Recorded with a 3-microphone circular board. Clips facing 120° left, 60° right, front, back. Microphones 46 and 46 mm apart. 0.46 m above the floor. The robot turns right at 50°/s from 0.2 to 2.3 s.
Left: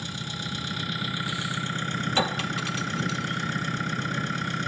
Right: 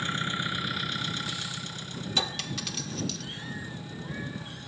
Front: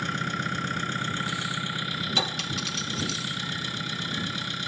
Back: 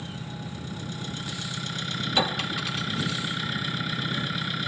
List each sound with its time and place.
0.0 s an engine running: 5° right; by 4.7 s 100° left
2.2 s a clink: 130° left; by 3.2 s 140° left